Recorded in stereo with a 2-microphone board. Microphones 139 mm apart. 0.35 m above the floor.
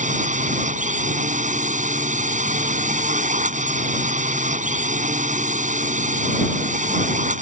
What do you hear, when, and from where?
0.0 s a drone: 65° right (ahead or behind)